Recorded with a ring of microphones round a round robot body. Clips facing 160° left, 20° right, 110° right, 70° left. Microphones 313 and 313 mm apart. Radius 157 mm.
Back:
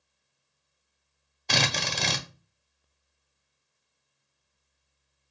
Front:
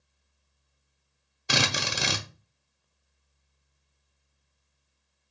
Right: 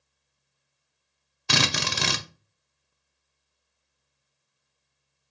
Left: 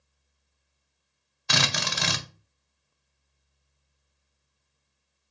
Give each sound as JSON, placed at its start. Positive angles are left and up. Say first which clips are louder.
{"t": 1.5, "sound": "a drill", "louder": "front 1 dB, right 3 dB", "azimuth_deg": -95, "distance_m": 0.7}